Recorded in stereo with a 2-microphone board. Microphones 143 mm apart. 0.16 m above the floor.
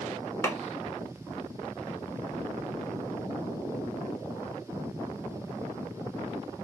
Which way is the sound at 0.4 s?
20° left (ahead or behind).